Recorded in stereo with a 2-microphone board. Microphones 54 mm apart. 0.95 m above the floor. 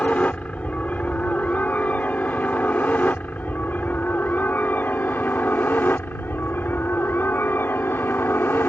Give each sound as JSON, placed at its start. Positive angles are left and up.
{"t": 0.0, "sound": "a helicopter", "side_deg": 25}